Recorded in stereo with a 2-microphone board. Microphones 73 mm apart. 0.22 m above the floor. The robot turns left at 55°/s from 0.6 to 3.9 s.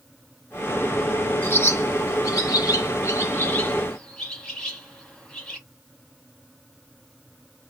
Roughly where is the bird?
Left.